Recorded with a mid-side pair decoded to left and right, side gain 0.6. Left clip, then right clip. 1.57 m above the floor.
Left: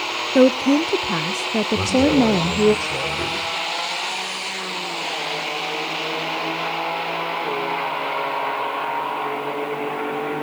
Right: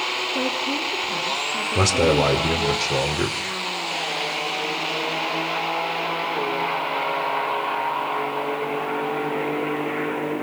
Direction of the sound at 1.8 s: 35° right.